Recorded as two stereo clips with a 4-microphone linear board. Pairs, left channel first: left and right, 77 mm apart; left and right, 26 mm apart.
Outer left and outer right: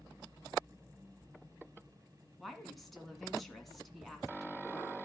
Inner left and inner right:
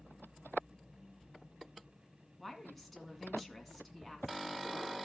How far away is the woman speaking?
About 1.8 m.